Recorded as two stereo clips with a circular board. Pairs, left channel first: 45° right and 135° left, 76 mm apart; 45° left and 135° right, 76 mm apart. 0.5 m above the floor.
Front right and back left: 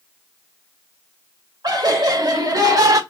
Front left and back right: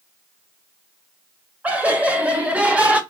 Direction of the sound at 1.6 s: 155° left.